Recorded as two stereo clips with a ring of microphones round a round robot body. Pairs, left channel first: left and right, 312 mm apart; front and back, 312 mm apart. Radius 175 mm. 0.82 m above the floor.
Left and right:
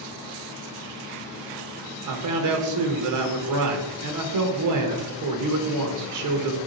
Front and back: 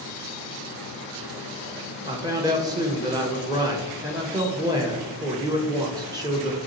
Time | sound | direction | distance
2.0 | a man speaking | 105° right | 0.6 m